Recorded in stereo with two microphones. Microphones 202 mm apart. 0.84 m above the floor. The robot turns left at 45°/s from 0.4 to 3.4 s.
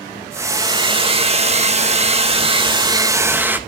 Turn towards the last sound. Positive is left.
turn(degrees=-165)